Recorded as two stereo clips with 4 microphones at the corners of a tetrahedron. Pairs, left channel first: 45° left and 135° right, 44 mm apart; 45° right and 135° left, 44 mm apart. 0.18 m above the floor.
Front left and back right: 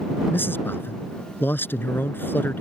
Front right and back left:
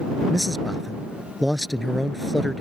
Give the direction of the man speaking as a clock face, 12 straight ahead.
10 o'clock.